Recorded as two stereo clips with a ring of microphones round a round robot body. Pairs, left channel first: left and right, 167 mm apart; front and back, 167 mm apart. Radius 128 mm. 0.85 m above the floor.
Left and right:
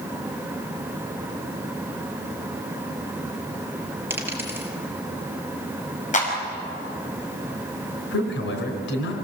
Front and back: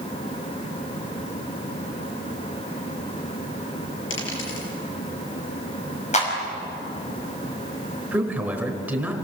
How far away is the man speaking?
About 4 m.